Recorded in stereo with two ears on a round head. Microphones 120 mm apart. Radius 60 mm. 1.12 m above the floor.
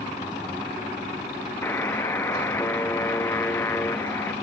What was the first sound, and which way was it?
A buzzer, 15° left (ahead or behind).